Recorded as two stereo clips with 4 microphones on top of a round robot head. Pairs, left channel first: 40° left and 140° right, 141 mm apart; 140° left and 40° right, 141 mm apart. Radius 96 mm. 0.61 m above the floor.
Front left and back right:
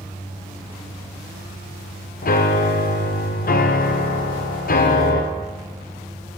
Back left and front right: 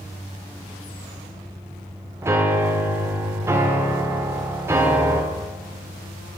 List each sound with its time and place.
2.2 s a piano: 30° left, 1.4 m